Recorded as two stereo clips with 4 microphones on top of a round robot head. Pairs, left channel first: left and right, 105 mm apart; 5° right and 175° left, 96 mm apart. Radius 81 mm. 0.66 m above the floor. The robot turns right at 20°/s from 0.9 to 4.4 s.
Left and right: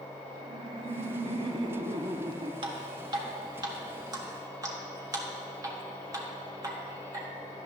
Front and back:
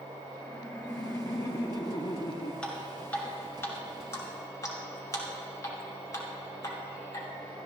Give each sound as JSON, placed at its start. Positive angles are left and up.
{"t": 0.4, "sound": "laughter", "azimuth_deg": -70, "distance_m": 0.8}
{"t": 2.6, "sound": "dripping", "azimuth_deg": -80, "distance_m": 1.7}